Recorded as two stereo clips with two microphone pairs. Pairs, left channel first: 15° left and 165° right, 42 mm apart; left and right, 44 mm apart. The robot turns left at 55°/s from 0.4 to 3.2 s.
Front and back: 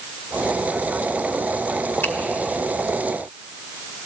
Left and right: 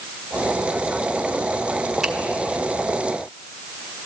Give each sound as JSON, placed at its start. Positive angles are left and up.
{"t": 2.0, "sound": "a finger snap", "azimuth_deg": -10, "distance_m": 1.0}